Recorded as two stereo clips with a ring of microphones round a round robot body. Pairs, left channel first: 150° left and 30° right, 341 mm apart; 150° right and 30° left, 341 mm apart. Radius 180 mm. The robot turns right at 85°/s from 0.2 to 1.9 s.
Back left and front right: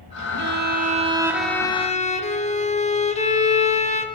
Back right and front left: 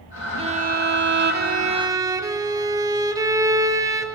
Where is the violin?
30° right, 1.2 m; by 4.1 s 100° left, 1.2 m.